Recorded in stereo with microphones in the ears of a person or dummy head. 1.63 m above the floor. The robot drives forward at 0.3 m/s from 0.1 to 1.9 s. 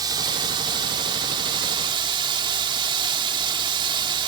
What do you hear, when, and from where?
0.0 s running water: 25° right (ahead or behind); by 4.3 s 30° right (ahead or behind)